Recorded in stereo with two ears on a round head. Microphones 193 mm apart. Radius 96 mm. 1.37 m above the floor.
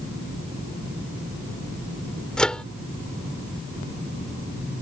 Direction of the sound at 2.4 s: 5° left (ahead or behind).